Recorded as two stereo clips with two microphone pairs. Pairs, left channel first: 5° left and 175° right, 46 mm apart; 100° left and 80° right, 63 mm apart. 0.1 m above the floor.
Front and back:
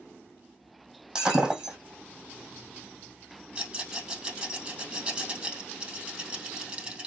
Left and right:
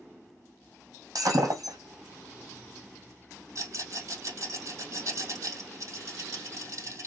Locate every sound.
1.1 s breaking glass: 100° right, 3 m
3.5 s a rattle: 110° right, 3 m